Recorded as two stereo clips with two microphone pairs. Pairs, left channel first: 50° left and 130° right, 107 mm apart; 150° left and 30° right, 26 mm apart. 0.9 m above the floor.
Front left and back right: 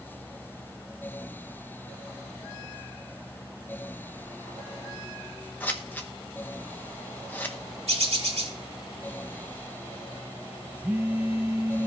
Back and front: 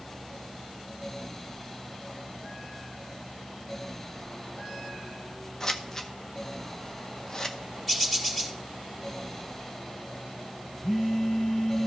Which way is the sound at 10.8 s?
175° left.